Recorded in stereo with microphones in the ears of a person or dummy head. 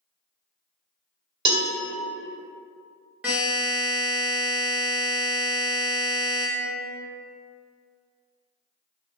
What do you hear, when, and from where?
1.4 s a cowbell: 40° right (ahead or behind), 0.9 m
3.2 s a buzzer: centre (ahead or behind), 0.7 m